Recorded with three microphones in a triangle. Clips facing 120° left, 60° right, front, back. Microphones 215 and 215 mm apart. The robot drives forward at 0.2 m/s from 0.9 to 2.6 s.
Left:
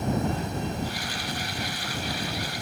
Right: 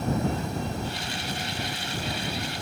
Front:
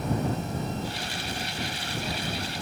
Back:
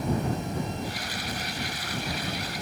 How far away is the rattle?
No rattle in this recording.